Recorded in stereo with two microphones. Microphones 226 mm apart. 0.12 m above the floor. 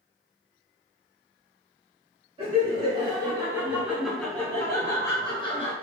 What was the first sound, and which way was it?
Laughter, 30° right (ahead or behind).